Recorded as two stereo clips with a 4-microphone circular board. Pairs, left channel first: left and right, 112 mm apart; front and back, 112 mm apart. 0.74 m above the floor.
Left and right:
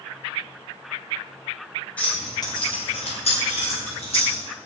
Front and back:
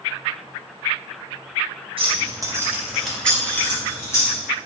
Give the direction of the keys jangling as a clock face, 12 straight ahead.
6 o'clock.